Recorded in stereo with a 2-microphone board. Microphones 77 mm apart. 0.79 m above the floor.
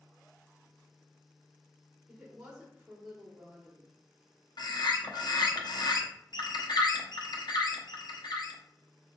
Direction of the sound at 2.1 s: 5° right (ahead or behind).